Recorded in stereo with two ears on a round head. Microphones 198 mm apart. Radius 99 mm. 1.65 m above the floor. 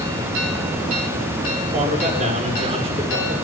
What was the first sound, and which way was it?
A man speaking, 40° right (ahead or behind).